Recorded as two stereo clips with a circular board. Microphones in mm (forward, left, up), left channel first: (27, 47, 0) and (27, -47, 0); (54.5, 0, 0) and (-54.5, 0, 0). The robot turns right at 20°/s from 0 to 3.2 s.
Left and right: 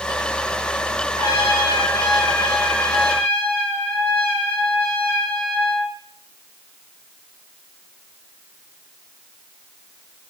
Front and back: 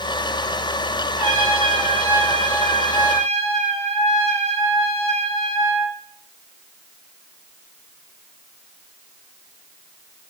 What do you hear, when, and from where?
1.2 s a trumpet: 125° left, 3.5 m; by 6.0 s 165° left, 3.5 m